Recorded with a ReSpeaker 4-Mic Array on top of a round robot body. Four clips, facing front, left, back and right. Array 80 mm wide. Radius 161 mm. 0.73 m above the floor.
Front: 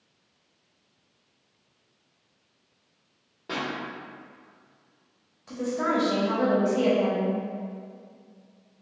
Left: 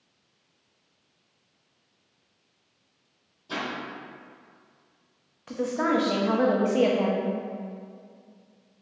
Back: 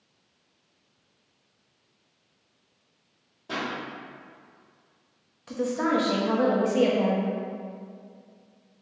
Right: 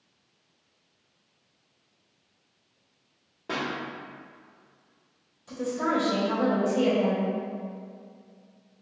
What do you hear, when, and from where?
3.5 s a pop: 65° right, 1.1 m
5.5 s a woman speaking: 105° left, 1.0 m